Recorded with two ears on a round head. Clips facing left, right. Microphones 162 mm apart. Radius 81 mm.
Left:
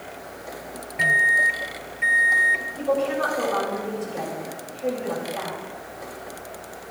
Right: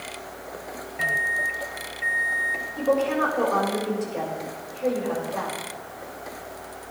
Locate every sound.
1.0 s a microwave: 25° left (ahead or behind), 0.7 m
2.8 s a woman speaking: 70° right (ahead or behind), 7.5 m